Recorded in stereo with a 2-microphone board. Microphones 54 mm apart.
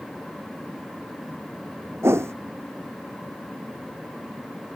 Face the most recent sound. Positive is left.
turn(degrees=-55)  # may be behind; listen again after turning